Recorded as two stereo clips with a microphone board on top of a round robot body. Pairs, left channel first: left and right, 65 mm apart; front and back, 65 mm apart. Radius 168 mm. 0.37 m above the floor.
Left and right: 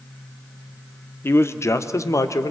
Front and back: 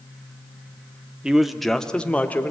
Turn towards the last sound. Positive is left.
turn(degrees=60)